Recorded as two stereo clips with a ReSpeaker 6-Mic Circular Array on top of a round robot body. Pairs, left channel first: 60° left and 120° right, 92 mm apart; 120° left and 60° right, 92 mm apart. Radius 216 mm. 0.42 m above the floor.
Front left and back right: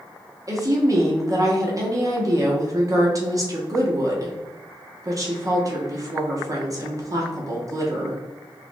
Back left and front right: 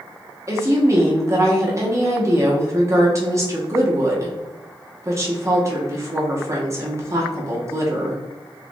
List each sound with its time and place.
0.5 s a woman speaking: 100° right, 1.3 m